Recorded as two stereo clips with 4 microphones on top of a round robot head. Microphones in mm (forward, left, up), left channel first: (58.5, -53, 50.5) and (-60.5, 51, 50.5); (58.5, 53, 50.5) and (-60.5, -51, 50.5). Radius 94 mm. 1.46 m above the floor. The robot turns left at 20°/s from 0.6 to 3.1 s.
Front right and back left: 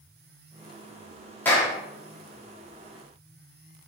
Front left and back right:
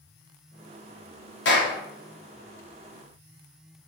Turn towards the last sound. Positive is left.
turn(degrees=5)